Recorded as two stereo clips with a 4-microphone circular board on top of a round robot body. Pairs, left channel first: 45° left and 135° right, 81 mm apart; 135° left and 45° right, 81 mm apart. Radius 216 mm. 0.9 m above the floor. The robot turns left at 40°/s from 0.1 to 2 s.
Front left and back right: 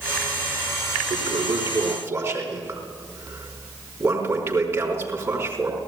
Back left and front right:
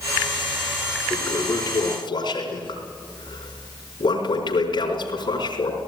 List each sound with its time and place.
1.1 s a toilet flushing: 160° right, 3.5 m; by 5.8 s 165° left, 3.5 m